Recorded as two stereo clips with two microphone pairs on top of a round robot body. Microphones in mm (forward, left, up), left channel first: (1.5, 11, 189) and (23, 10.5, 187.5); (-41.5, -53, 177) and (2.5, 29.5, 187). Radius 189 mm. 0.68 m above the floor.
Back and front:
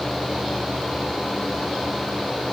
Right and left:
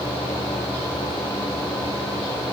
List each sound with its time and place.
Only background noise.